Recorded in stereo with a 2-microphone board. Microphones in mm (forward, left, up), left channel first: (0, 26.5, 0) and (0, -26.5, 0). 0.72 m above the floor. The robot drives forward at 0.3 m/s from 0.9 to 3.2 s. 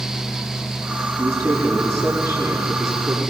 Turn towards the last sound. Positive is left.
turn(degrees=-75)  # may be behind; listen again after turning